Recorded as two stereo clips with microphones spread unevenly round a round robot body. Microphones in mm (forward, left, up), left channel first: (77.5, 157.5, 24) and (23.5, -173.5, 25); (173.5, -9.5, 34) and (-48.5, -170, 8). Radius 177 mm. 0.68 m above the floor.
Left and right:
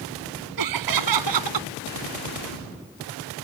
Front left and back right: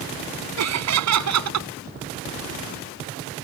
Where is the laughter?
130° right.